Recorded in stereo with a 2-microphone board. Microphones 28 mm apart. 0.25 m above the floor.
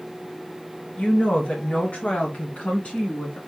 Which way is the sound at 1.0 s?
55° left (ahead or behind).